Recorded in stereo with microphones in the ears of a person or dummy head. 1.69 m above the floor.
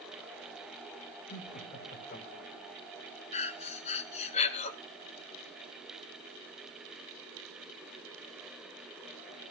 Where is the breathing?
35° left (ahead or behind), 0.9 m.